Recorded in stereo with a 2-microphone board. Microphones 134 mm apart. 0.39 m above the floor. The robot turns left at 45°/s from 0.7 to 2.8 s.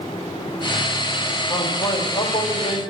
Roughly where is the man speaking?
Behind left.